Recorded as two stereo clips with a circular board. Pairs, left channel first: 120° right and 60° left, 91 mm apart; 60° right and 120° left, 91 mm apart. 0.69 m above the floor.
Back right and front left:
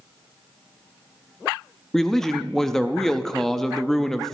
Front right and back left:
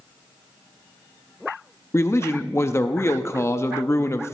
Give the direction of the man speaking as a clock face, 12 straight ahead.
1 o'clock.